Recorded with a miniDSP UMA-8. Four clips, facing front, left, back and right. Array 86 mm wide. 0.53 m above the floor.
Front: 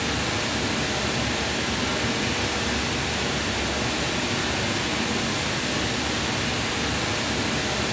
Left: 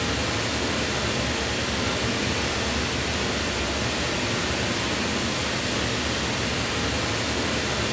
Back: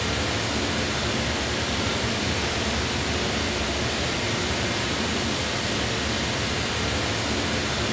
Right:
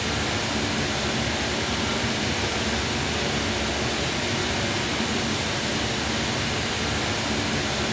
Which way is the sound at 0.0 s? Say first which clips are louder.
Even, even; 5° left.